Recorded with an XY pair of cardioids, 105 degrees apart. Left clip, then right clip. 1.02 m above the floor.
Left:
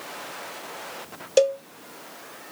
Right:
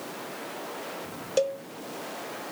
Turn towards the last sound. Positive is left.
turn(degrees=45)